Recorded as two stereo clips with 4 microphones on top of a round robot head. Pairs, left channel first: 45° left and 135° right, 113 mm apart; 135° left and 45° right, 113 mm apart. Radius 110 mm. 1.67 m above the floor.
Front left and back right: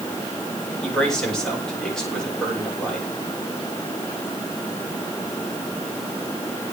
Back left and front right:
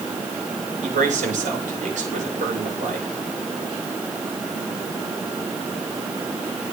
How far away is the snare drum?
No snare drum in this recording.